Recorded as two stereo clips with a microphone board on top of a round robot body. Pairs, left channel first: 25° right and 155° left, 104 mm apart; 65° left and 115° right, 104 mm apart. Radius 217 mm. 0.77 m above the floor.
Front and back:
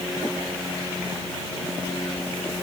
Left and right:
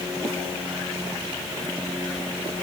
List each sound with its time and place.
Only background noise.